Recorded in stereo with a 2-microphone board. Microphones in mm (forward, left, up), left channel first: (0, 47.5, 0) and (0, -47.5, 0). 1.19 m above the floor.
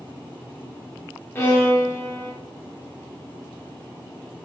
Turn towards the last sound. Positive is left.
turn(degrees=25)  # may be behind; listen again after turning